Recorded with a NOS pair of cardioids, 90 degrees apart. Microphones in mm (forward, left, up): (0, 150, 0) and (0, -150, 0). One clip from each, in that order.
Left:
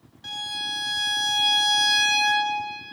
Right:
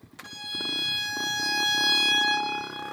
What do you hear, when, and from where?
0.2 s a violin: 25° left, 1.4 m